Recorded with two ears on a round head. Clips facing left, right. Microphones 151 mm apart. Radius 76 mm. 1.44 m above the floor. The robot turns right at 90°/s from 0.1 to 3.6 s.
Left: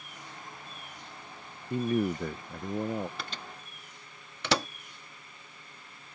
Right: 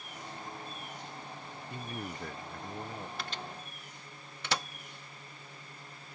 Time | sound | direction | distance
1.7 | a man speaking | 25° left | ?
3.2 | a microwave | 75° left (ahead or behind) | ?